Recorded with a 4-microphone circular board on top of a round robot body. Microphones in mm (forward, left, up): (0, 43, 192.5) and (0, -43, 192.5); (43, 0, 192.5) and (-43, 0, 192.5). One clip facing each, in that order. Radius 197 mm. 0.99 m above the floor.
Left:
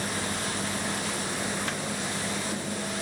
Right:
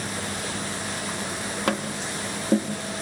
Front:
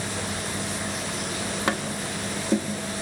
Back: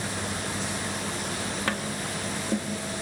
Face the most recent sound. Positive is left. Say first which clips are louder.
# right 5 dB, front 3 dB
turn(degrees=-75)